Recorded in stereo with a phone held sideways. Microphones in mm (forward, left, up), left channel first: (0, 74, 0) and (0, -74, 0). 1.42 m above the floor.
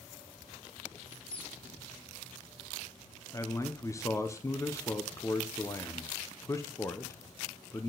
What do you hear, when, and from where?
1.0 s a squeak: 40° left (ahead or behind), 7 m
3.3 s a man speaking: 20° left (ahead or behind), 0.8 m